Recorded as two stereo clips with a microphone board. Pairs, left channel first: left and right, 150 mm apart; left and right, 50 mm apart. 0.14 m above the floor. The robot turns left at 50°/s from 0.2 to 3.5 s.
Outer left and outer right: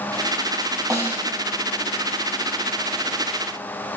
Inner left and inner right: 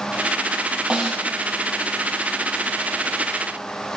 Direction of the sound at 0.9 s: 25° right (ahead or behind).